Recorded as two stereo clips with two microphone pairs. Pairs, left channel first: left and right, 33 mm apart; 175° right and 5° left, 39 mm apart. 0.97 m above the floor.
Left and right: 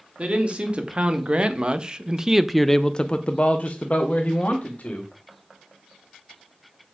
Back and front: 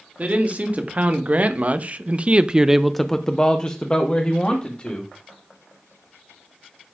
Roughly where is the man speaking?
Ahead right.